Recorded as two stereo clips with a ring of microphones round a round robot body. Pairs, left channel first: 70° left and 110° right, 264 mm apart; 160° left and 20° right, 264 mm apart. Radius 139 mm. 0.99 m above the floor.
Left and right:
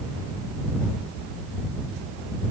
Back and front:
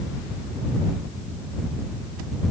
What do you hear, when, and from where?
Only background noise.